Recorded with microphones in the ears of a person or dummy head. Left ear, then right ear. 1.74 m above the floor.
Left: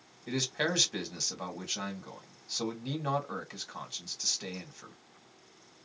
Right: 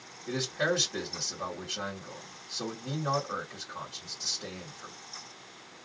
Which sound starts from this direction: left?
A man speaking, at 0.3 s.